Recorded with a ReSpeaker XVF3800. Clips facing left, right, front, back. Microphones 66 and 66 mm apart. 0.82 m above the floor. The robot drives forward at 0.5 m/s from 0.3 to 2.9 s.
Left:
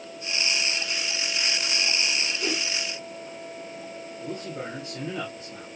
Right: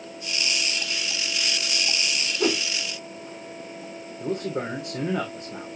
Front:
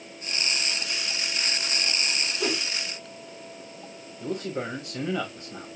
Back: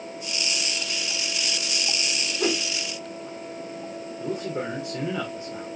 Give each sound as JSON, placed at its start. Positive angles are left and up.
{"t": 2.4, "sound": "a whoosh", "azimuth_deg": -105, "distance_m": 1.3}
{"t": 4.2, "sound": "a man speaking", "azimuth_deg": -110, "distance_m": 2.5}